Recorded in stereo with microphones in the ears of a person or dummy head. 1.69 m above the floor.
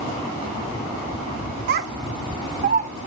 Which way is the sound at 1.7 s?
55° right (ahead or behind).